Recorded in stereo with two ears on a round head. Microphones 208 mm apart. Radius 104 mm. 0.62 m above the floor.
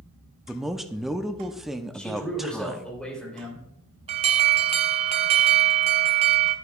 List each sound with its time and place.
0.5 s a man speaking: centre (ahead or behind), 0.5 m
1.9 s a man speaking: 5° left (ahead or behind), 3 m
4.1 s an alarm: 25° right (ahead or behind), 0.6 m